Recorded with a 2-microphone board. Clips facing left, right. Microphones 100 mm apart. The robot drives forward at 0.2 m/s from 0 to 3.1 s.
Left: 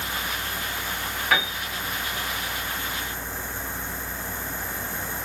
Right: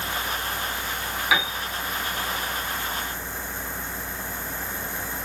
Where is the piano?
5° right (ahead or behind), 0.9 m.